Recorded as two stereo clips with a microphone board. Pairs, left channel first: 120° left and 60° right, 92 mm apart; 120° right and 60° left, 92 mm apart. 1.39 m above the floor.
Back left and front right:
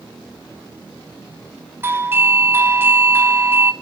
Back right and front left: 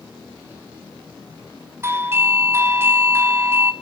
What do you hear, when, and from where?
1.8 s a doorbell: straight ahead, 1.4 m